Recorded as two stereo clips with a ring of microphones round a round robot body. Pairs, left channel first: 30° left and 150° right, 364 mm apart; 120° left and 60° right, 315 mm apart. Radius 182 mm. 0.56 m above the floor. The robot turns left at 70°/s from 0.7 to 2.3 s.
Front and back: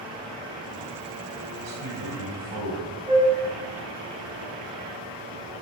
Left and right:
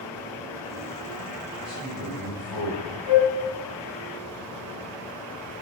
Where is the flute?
135° left, 3 m.